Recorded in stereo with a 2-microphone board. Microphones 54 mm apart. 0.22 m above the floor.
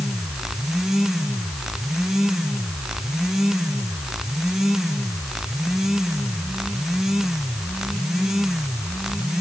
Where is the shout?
I don't hear a shout.